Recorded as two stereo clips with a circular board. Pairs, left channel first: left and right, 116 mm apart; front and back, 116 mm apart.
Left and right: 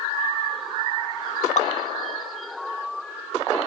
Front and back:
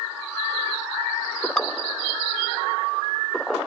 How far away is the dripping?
About 1.4 m.